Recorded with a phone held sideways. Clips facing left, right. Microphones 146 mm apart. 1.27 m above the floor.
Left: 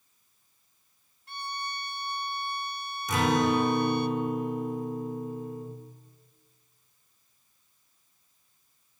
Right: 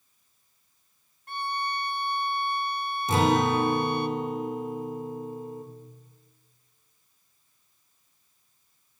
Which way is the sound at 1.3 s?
55° right (ahead or behind).